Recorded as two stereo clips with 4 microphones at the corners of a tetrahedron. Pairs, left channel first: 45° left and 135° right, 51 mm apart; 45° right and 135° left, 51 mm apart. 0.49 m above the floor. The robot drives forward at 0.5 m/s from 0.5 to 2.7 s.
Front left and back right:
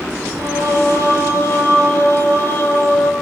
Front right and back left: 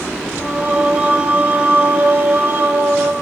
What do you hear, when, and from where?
0.4 s singing: 70° left, 3 m; by 3.1 s 90° left, 2.5 m